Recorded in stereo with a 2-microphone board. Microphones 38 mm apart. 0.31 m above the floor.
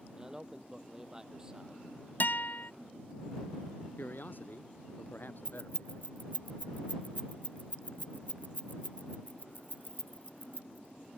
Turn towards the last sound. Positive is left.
turn(degrees=55)  # may be behind; listen again after turning